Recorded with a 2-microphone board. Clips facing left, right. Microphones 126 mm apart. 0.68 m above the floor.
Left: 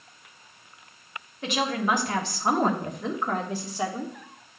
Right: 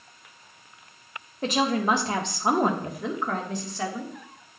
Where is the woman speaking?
40° right (ahead or behind), 1.5 m; by 4.1 s 20° left (ahead or behind), 1.7 m.